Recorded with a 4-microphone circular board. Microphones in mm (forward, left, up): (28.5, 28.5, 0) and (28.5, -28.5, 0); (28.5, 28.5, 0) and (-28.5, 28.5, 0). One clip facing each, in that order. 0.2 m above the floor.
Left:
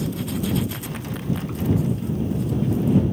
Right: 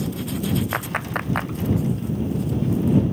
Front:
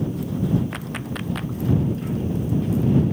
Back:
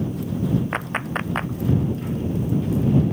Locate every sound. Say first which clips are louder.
0.7 s a clap: right 6 dB, back 4 dB; 125° right